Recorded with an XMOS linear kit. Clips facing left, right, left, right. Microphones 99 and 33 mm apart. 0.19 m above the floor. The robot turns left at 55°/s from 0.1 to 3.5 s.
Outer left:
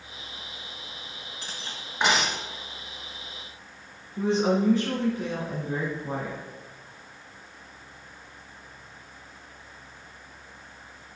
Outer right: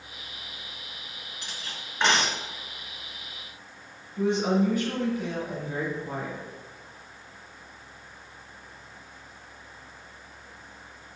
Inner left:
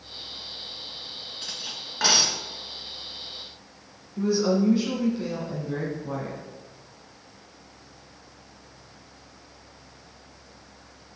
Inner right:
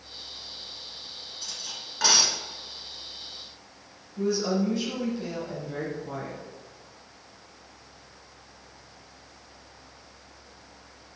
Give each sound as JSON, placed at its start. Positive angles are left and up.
{"t": 1.4, "sound": "cutlery clinking", "side_deg": 40, "distance_m": 1.4}
{"t": 4.2, "sound": "a woman speaking", "side_deg": 30, "distance_m": 1.9}